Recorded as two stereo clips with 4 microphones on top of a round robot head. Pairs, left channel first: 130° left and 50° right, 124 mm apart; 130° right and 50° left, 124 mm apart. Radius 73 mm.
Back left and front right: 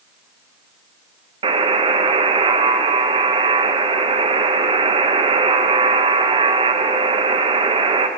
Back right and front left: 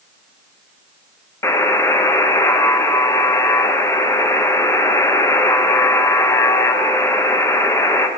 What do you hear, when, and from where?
1.4 s a buzzer: 70° right, 1.0 m